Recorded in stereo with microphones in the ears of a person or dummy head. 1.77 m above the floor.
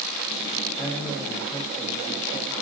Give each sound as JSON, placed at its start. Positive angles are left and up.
{"t": 0.8, "sound": "a man speaking", "side_deg": 15, "distance_m": 6.5}